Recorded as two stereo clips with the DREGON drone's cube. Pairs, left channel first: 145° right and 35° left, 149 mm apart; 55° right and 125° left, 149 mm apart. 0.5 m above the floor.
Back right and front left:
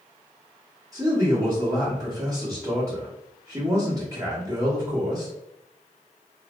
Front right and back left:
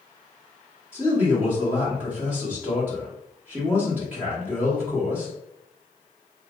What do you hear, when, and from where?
0.9 s a man speaking: 60° left, 1.2 m